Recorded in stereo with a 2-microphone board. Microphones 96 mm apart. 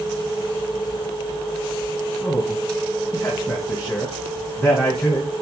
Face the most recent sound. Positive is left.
turn(degrees=25)  # may be behind; listen again after turning